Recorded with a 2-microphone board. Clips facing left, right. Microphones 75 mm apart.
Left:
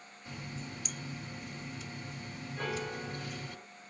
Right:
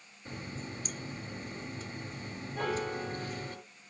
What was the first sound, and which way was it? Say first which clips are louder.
A running tap: right 2 dB; 40° right (ahead or behind).